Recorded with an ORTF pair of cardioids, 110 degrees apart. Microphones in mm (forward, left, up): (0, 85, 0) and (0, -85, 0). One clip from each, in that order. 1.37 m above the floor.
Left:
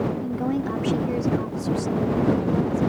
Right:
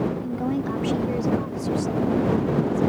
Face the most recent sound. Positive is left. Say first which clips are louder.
# left 1 dB
turn(degrees=5)